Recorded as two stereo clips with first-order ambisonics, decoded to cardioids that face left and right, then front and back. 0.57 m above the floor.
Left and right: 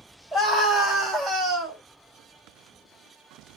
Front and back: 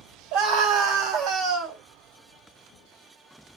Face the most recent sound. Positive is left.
turn(degrees=-145)